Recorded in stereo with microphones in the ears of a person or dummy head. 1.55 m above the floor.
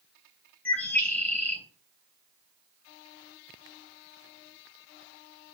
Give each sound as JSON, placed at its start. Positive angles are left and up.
{"t": 0.7, "sound": "a bird", "side_deg": 5, "distance_m": 3.0}